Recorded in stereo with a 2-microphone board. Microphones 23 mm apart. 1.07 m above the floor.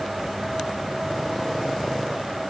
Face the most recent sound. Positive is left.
No sound to turn to.